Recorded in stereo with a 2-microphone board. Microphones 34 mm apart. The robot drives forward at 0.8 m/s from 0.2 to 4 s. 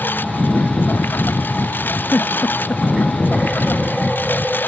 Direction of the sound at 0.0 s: 90° left.